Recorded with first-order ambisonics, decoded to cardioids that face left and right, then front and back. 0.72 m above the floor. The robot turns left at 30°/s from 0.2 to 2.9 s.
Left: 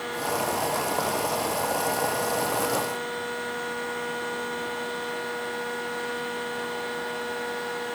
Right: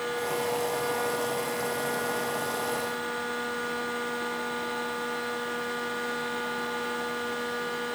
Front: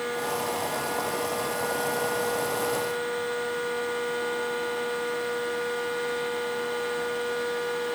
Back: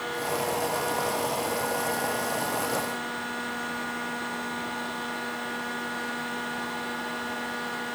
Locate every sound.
Only background noise.